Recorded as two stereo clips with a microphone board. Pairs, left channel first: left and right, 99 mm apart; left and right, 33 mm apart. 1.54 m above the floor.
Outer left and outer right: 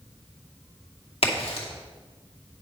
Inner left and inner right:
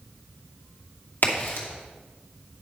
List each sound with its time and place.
1.2 s a crack: 75° left (ahead or behind), 2.5 m